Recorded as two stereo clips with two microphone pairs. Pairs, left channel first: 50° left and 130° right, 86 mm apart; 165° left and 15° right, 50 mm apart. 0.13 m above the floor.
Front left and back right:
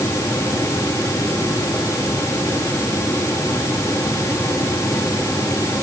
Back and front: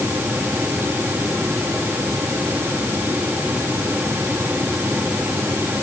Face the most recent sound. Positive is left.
No sound to turn to.